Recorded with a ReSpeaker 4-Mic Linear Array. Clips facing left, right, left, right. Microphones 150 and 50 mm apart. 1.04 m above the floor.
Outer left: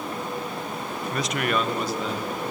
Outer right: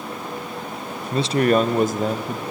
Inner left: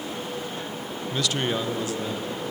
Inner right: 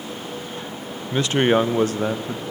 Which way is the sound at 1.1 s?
20° right (ahead or behind).